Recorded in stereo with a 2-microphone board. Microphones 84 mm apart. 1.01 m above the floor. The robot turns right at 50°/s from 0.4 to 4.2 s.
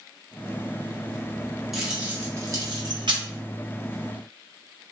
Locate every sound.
1.7 s keys jangling: centre (ahead or behind), 0.7 m; by 3.2 s 70° right (ahead or behind), 0.7 m